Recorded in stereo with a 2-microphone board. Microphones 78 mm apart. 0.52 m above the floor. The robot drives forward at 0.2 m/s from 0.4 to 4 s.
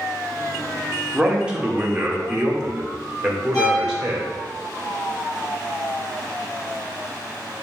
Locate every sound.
1.1 s a man speaking: 10° right (ahead or behind), 1.4 m
3.5 s a violin: 50° left (ahead or behind), 3 m